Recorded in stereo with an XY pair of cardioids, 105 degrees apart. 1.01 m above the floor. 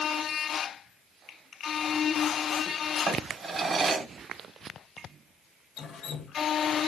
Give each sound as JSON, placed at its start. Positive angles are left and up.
{"t": 3.1, "sound": "a drawer", "azimuth_deg": -45, "distance_m": 1.2}
{"t": 5.8, "sound": "dripping", "azimuth_deg": 60, "distance_m": 0.9}